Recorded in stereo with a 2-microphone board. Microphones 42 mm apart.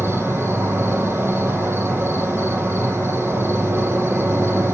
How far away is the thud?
I don't hear a thud.